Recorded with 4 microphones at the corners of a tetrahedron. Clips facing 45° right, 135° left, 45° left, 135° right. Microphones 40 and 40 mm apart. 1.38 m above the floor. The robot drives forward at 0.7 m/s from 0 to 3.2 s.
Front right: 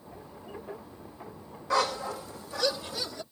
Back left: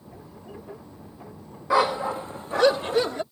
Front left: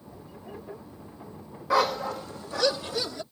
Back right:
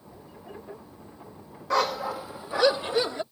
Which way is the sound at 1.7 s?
115° left.